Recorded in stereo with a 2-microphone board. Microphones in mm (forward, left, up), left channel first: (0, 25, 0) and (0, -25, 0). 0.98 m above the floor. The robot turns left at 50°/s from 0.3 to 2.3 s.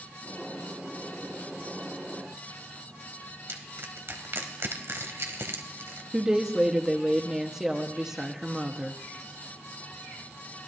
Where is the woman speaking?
10° right (ahead or behind), 1.2 m.